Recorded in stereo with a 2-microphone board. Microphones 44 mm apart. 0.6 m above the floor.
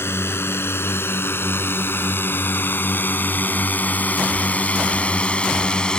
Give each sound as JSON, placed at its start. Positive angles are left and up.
{"t": 0.0, "sound": "a drone", "side_deg": 65}